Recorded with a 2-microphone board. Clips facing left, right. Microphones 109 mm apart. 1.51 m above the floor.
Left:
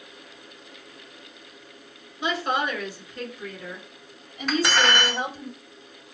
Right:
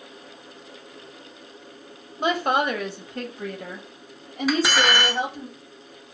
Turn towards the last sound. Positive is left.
turn(degrees=-5)  # may be behind; listen again after turning